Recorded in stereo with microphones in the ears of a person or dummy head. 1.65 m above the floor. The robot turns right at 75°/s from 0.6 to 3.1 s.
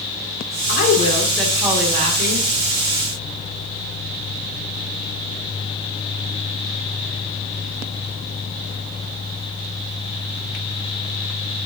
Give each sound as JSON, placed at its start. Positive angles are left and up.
{"t": 0.7, "sound": "a woman speaking", "azimuth_deg": 120, "distance_m": 2.5}